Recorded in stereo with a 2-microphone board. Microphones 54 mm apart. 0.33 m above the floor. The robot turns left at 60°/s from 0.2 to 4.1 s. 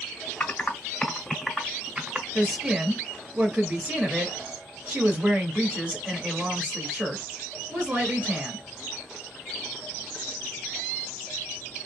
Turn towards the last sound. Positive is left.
turn(degrees=-30)  # may be behind; listen again after turning